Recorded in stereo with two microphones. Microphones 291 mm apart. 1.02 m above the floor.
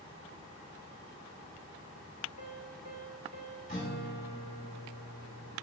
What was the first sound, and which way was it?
A piano, 65° right (ahead or behind).